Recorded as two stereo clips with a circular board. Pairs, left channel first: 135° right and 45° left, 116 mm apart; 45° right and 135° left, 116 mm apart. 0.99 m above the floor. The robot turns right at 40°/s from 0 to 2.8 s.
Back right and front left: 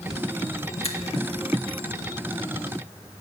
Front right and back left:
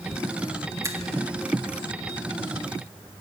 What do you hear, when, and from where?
0.8 s a finger snap: 165° right, 1.7 m; by 1.0 s 155° right, 1.7 m